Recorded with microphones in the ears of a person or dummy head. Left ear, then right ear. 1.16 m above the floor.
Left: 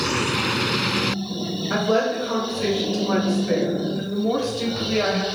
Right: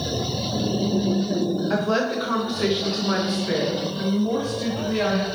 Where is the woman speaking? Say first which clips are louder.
Left 4 dB; 55° right (ahead or behind), 1.2 m; by 5.2 s 60° left (ahead or behind), 1.0 m.